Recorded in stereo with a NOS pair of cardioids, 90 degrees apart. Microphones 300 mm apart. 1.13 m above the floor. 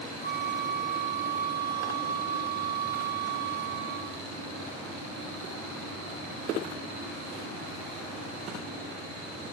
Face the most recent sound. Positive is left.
turn(degrees=15)